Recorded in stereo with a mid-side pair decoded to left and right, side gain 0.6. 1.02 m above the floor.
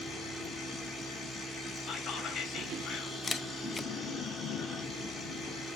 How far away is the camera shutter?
About 0.6 m.